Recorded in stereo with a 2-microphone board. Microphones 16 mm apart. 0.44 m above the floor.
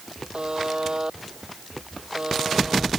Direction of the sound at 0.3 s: 60° right (ahead or behind).